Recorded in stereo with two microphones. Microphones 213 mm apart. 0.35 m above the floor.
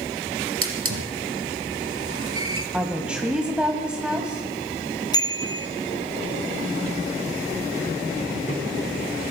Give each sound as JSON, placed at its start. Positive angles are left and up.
{"t": 0.6, "sound": "a hiss", "side_deg": -80, "distance_m": 2.5}
{"t": 2.7, "sound": "a woman speaking", "side_deg": -5, "distance_m": 1.6}
{"t": 5.1, "sound": "a bicycle bell", "side_deg": 15, "distance_m": 2.5}